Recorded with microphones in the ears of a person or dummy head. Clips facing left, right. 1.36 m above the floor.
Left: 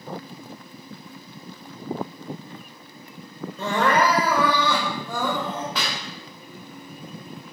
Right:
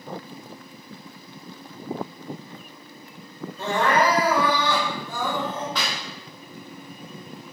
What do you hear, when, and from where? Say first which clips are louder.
3.6 s crying: even; 55° left (ahead or behind), 1.4 m
5.8 s a clap: even; 10° left (ahead or behind), 1.9 m